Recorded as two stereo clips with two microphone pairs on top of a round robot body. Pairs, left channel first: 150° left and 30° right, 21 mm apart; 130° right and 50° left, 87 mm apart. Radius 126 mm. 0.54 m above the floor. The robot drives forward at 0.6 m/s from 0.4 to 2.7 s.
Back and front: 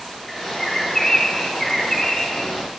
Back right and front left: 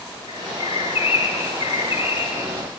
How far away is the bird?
About 5.5 m.